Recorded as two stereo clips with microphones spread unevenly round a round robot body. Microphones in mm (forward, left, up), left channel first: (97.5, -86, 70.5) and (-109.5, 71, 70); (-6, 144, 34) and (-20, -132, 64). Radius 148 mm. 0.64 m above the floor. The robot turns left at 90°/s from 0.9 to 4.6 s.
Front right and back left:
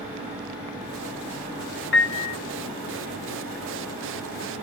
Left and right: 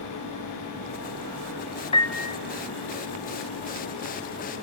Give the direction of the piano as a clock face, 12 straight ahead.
12 o'clock.